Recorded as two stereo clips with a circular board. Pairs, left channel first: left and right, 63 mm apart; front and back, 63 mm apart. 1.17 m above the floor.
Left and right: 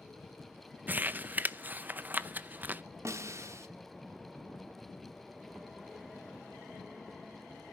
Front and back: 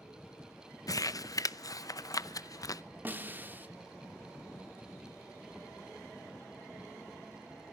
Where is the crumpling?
25° right, 0.6 m.